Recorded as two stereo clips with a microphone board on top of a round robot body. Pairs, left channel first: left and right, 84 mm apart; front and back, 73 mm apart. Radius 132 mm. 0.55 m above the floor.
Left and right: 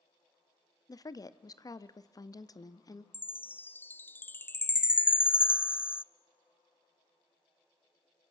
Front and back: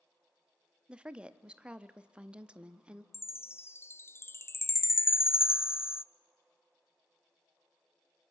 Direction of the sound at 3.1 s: 35° left.